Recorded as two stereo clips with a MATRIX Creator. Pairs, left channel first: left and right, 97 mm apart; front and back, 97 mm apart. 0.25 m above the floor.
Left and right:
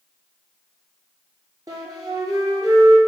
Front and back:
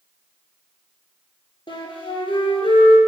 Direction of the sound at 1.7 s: 35° right.